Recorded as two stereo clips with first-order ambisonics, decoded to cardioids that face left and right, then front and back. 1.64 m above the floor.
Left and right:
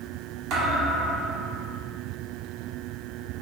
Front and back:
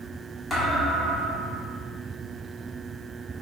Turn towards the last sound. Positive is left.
turn(degrees=-70)